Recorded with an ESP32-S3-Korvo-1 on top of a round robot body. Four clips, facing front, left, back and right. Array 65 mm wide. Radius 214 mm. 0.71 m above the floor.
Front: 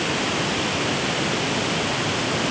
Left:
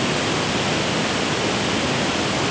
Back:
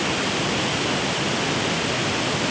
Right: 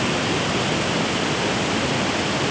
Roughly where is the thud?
No thud in this recording.